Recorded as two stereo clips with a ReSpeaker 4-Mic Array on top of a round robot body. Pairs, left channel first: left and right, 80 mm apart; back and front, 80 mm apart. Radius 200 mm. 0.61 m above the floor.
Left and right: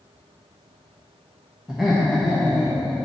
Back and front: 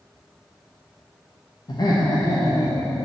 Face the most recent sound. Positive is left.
turn(degrees=-175)